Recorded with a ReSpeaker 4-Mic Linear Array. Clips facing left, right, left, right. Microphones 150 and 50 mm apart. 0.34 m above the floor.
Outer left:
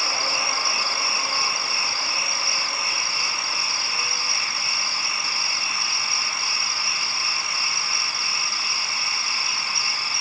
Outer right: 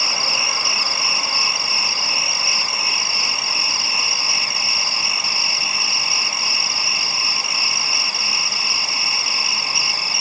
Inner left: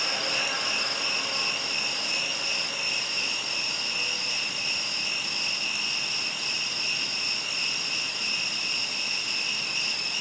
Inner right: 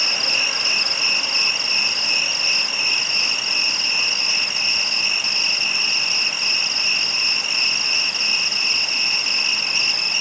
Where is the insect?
75° right (ahead or behind), 0.8 m.